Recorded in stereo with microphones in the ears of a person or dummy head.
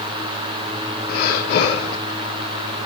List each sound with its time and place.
1.1 s breathing: 45° left (ahead or behind), 1.1 m